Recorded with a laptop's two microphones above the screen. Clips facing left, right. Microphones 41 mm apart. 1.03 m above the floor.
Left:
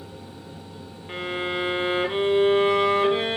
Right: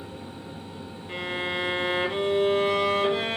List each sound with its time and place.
0.0 s a fan: 30° right (ahead or behind), 0.9 m
1.1 s a violin: 25° left (ahead or behind), 0.7 m